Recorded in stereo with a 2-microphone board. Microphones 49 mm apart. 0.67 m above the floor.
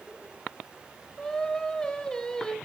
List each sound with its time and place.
1.2 s singing: 15° left (ahead or behind), 1.6 m